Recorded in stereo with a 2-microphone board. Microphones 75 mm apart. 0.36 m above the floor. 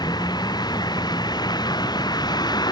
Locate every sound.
0.0 s a vehicle: 65° left (ahead or behind)